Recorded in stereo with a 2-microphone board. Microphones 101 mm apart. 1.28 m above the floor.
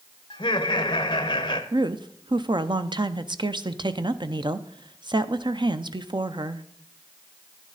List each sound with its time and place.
0.3 s laughter: 50° left (ahead or behind), 1.1 m
1.7 s a woman speaking: 50° right (ahead or behind), 0.5 m